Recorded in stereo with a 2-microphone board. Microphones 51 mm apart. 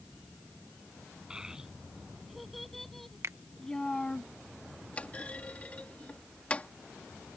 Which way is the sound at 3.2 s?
65° right (ahead or behind).